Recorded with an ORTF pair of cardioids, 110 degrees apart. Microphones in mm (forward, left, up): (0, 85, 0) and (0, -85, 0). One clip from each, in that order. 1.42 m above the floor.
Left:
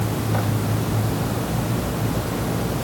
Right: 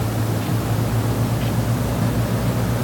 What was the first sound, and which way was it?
Only background noise.